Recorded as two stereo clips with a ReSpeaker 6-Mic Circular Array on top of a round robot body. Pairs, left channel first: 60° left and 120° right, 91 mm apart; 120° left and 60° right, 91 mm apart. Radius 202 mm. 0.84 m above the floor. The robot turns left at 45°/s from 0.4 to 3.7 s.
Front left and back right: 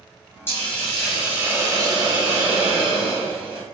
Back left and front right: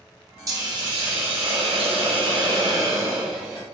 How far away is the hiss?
About 2.5 m.